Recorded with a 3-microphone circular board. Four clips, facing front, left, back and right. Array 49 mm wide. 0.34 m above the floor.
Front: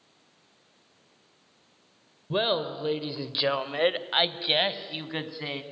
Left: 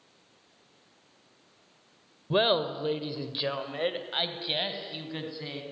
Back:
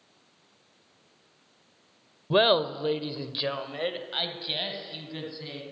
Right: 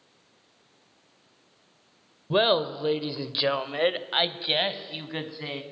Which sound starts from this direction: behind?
Laughter, at 2.3 s.